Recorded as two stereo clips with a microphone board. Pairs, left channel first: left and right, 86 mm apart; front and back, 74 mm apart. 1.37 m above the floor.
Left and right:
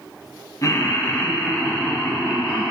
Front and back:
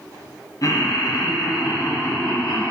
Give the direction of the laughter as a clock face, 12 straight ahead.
11 o'clock.